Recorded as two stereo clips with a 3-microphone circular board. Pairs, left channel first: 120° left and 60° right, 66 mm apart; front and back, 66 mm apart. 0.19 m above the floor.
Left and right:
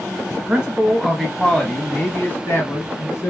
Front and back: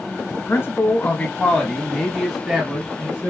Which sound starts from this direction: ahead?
A man speaking, at 0.3 s.